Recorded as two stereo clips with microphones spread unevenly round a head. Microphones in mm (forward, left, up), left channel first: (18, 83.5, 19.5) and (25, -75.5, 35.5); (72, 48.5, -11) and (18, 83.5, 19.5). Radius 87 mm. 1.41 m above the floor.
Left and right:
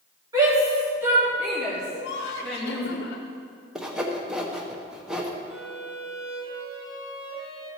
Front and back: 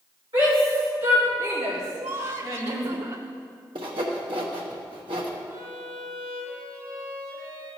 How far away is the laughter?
About 0.8 m.